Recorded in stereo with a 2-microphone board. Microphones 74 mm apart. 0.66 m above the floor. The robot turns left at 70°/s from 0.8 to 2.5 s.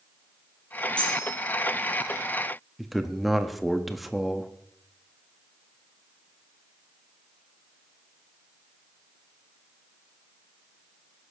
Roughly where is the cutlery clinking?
Centre.